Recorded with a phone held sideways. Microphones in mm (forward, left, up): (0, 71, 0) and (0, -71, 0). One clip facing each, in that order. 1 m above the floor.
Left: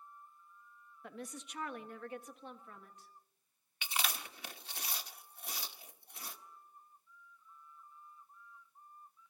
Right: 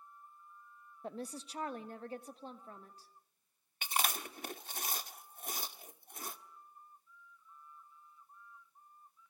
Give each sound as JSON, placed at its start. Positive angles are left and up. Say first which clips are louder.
{"t": 1.0, "sound": "a woman speaking", "louder": "right 4 dB", "side_deg": -30, "distance_m": 0.8}
{"t": 3.8, "sound": "chewing", "louder": "right 4 dB", "side_deg": -45, "distance_m": 1.0}